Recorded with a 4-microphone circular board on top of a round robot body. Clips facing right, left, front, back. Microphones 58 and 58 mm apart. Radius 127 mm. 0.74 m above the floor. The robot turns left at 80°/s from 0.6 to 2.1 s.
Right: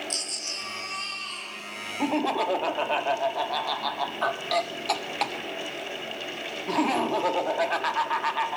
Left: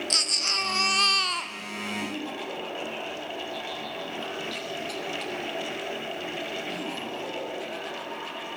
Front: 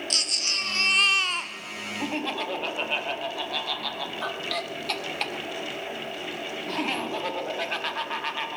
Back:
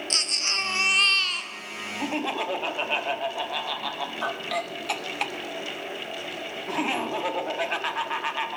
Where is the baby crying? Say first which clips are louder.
Left 7 dB, back 2 dB; 120° left, 0.6 m; by 1.5 s 50° left, 0.6 m.